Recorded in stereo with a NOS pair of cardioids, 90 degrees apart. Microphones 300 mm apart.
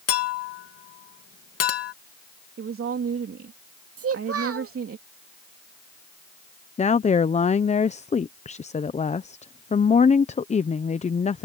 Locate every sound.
0.1 s a clink: 55° left
2.6 s a woman speaking: 45° right
4.0 s a child speaking: 50° right
6.8 s a woman speaking: 25° left